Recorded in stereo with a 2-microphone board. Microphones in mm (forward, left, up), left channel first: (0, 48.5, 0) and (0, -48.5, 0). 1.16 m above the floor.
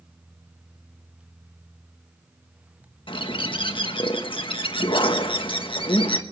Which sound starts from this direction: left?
A bird, at 3.1 s.